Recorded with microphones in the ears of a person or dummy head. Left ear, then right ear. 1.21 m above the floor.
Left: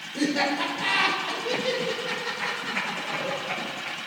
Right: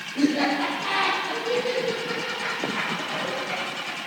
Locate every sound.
0.1 s laughter: 60° left (ahead or behind), 3.5 m; by 4.0 s 45° left (ahead or behind), 6 m